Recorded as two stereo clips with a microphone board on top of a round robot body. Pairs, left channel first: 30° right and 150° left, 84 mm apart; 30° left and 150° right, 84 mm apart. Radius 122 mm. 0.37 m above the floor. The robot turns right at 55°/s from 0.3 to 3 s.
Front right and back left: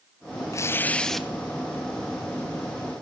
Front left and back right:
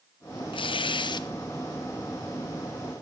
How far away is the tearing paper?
About 1.1 m.